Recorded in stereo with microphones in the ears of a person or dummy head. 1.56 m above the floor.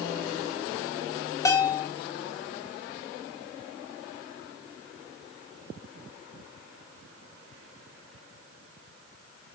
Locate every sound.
1.4 s a bell: 15° left (ahead or behind), 1.1 m